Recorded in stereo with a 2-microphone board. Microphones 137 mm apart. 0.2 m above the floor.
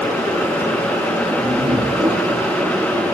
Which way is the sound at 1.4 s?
50° right (ahead or behind).